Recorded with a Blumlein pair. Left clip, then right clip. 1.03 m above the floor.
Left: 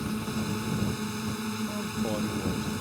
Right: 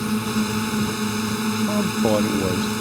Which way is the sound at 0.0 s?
25° right.